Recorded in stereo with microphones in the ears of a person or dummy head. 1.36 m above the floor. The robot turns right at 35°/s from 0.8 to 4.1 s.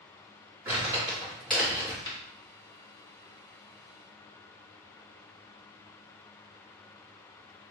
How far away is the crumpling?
About 2.5 m.